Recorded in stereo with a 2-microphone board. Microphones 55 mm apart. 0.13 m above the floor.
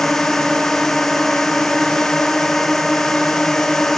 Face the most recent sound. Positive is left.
turn(degrees=0)  # may be behind; listen again after turning